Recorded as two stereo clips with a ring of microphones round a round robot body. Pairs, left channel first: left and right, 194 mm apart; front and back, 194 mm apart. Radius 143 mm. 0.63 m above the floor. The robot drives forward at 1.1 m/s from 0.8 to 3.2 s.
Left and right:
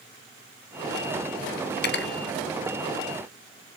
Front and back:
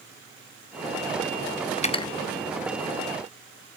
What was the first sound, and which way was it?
Cutlery clinking, 55° left.